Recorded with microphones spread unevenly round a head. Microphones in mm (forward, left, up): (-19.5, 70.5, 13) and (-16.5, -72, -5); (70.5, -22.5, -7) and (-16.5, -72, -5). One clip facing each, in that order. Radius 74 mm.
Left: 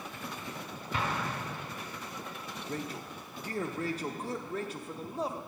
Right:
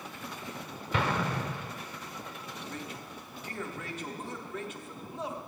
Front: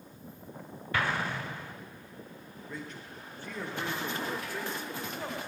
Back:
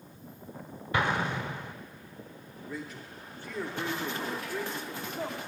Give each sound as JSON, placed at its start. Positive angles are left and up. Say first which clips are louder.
{"t": 0.9, "sound": "an explosion", "louder": "right 4 dB, back 3 dB", "azimuth_deg": -80, "distance_m": 0.6}
{"t": 2.7, "sound": "a man speaking", "louder": "left 6 dB, back 2 dB", "azimuth_deg": 125, "distance_m": 0.6}